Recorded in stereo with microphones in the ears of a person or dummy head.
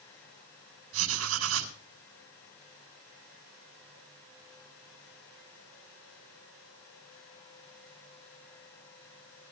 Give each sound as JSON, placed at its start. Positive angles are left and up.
{"t": 0.9, "sound": "writing", "side_deg": -80, "distance_m": 3.5}